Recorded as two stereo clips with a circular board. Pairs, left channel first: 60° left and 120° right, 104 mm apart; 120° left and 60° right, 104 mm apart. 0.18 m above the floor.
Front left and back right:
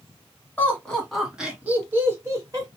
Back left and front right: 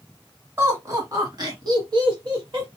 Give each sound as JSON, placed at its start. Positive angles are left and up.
{"t": 0.6, "sound": "laughter", "azimuth_deg": -10, "distance_m": 1.5}